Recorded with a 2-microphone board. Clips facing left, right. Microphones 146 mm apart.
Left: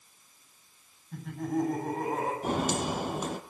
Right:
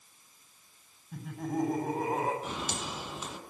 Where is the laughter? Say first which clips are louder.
Left 3 dB; 5° right (ahead or behind), 8 m.